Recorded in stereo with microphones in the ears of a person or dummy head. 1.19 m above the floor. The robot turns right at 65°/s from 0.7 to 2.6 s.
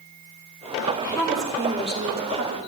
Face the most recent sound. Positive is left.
turn(degrees=-95)